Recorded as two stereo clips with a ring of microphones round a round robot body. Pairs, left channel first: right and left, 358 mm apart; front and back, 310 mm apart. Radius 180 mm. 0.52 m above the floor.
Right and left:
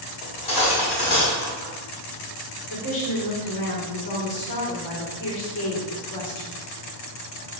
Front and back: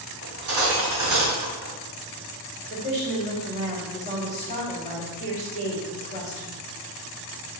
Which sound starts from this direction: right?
A woman speaking, at 2.7 s.